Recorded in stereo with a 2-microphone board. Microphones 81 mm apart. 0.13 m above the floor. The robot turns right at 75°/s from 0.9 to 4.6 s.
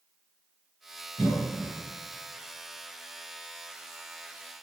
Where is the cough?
5° left (ahead or behind), 1.8 m; by 1.7 s 20° right (ahead or behind), 1.8 m.